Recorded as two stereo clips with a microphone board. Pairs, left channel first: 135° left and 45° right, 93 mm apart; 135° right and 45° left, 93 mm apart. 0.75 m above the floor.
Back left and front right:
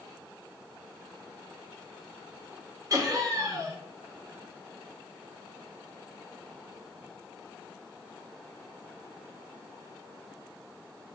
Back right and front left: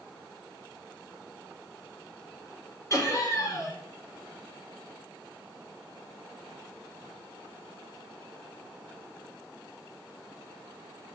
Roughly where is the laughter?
Right.